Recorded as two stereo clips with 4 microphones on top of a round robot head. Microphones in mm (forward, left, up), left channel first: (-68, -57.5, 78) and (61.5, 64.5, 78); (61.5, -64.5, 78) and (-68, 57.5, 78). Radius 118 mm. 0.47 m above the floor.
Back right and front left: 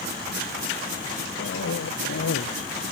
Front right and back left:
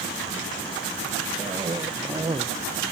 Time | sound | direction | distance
1.4 | a cough | 155° right | ?